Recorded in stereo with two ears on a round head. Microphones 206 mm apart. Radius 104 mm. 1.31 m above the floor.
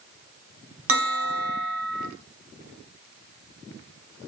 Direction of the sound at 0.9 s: 65° right (ahead or behind).